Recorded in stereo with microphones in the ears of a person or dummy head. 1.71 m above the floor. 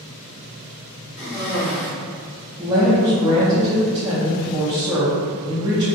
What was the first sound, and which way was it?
A cough, 35° left (ahead or behind).